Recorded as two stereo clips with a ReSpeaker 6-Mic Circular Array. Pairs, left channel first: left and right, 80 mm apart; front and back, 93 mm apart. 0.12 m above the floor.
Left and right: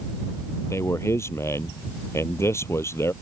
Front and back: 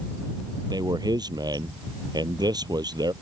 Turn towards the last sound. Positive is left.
turn(degrees=140)